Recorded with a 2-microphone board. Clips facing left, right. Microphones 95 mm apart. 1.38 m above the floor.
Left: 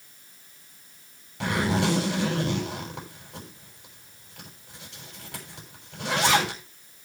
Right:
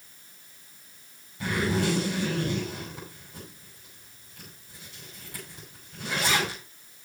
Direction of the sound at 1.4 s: 90° left.